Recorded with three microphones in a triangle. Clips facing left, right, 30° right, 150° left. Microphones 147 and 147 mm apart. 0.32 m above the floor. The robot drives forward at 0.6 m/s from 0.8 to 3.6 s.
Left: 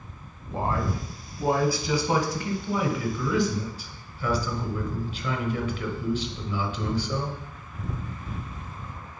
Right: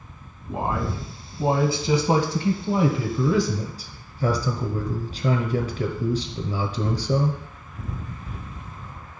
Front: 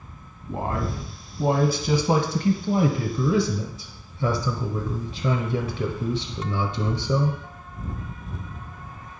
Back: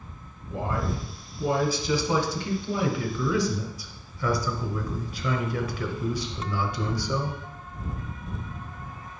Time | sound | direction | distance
0.5 | a man speaking | 20° right | 2 m